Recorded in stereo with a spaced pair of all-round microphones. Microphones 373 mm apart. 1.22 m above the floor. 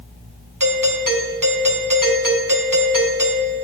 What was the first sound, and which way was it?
A doorbell, 55° right (ahead or behind).